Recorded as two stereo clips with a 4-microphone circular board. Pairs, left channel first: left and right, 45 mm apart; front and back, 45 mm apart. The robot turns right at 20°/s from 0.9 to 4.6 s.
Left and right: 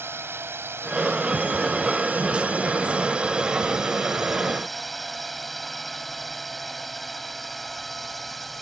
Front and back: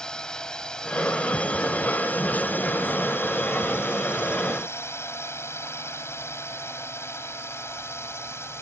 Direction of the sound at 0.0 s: 70° right.